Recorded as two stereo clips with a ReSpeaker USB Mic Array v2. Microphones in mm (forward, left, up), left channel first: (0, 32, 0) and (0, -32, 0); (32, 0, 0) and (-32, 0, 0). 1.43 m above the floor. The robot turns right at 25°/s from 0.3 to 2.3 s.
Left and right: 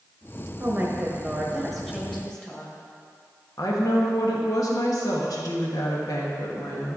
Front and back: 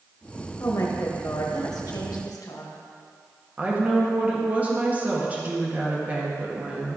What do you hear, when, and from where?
0.6 s a woman speaking: 30° right, 1.7 m; by 2.7 s 15° left, 1.7 m
3.6 s a woman speaking: 115° left, 1.6 m